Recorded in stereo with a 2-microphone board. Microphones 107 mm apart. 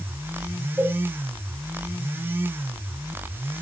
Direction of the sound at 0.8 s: 15° right (ahead or behind).